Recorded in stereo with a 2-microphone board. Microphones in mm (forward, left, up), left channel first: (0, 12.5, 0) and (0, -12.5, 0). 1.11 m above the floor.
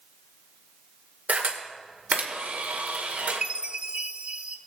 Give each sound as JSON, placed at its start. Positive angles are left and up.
{"t": 1.3, "sound": "a camera shutter", "side_deg": -75, "distance_m": 2.0}
{"t": 3.4, "sound": "a chime", "side_deg": -40, "distance_m": 0.6}